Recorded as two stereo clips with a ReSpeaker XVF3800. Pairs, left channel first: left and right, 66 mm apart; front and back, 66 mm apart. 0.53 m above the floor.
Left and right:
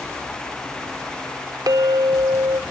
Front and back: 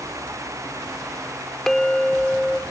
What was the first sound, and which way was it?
A clink, 85° right.